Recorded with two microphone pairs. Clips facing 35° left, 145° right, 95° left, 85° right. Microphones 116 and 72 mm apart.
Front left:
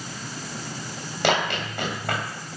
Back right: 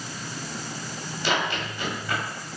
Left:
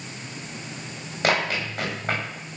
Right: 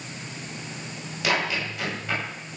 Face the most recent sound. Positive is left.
turn(degrees=50)